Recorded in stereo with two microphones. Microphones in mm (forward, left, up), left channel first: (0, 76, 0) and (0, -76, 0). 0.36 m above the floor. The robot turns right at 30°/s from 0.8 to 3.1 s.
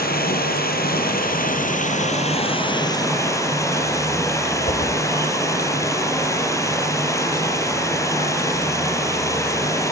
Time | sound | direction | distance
0.0 | running water | 90° left | 5 m
4.7 | a whoosh | 55° left (ahead or behind) | 3.5 m